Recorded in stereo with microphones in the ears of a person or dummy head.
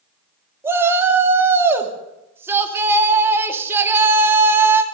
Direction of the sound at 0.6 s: 15° right (ahead or behind).